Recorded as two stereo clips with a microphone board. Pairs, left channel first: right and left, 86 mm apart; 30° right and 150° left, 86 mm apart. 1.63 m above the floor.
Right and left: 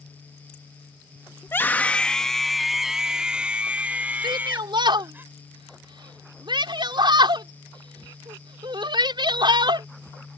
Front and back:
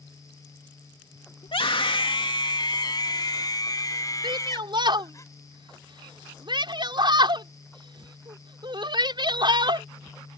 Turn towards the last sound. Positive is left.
turn(degrees=120)